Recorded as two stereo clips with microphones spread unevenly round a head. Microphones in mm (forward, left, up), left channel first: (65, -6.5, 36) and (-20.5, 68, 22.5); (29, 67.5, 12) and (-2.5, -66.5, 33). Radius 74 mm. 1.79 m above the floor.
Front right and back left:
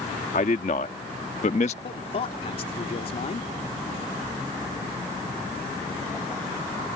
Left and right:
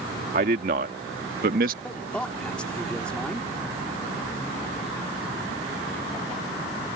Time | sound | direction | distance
0.3 | a man speaking | 80° right | ?
1.8 | a man speaking | 5° right | ?